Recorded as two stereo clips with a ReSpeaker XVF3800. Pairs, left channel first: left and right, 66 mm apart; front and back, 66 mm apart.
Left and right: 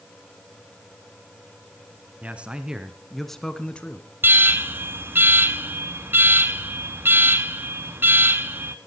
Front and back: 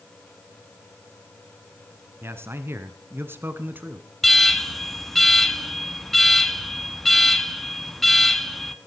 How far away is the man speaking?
About 1.6 m.